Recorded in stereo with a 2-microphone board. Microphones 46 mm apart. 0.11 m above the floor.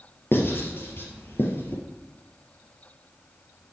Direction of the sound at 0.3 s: 50° left (ahead or behind).